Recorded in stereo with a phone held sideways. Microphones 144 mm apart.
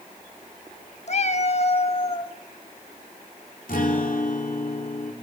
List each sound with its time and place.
1.1 s a cat meowing: 50° left (ahead or behind), 0.8 m; by 2.3 s 40° left (ahead or behind), 1.8 m
3.7 s a guitar: 75° left (ahead or behind), 3 m